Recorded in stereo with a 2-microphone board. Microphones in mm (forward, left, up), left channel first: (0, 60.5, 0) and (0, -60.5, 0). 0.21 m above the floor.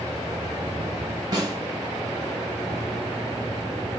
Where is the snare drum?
35° right (ahead or behind), 1.4 m.